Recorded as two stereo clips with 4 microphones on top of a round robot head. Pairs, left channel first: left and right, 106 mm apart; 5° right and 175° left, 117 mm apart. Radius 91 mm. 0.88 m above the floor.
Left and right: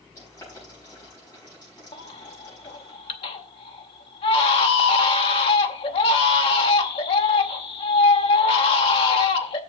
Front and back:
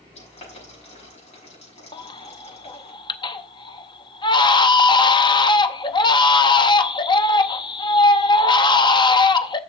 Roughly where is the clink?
No clink in this recording.